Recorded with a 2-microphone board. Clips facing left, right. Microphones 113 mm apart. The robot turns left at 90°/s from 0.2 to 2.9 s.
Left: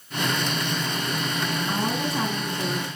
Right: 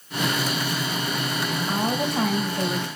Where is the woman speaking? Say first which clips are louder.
Right 4 dB; 25° right, 3 m; by 2.9 s 130° right, 3 m.